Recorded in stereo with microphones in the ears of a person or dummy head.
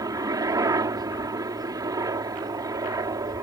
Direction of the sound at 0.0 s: 20° right (ahead or behind).